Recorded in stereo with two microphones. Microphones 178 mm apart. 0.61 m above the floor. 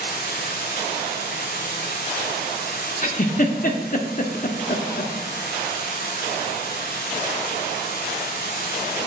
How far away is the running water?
About 4.5 m.